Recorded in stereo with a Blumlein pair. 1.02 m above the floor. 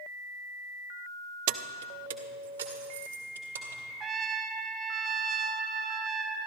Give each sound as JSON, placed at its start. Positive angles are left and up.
{"t": 1.5, "sound": "keys jangling", "azimuth_deg": -45, "distance_m": 0.5}
{"t": 4.0, "sound": "a trumpet", "azimuth_deg": -25, "distance_m": 0.8}